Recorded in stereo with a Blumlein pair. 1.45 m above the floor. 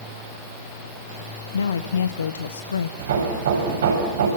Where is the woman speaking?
70° left, 1.0 m.